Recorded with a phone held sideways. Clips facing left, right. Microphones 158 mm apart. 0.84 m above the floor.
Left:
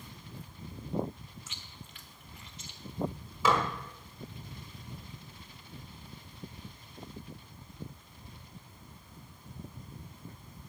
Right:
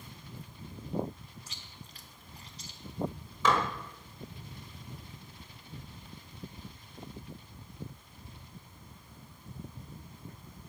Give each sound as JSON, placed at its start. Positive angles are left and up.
{"t": 1.5, "sound": "chewing", "side_deg": -35, "distance_m": 0.7}
{"t": 3.5, "sound": "dishes clattering", "side_deg": 10, "distance_m": 1.5}